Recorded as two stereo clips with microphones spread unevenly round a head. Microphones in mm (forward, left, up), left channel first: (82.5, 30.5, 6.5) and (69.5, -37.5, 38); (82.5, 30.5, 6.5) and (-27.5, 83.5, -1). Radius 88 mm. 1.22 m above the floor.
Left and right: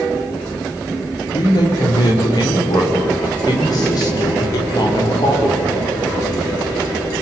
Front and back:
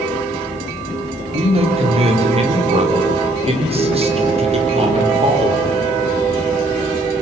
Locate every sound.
1.3 s a man speaking: 120° left, 4 m